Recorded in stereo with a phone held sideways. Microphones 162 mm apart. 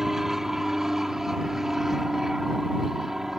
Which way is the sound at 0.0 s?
5° right (ahead or behind).